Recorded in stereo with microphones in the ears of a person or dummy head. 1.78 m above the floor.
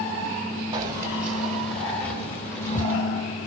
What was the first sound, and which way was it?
Keys jangling, 25° right (ahead or behind).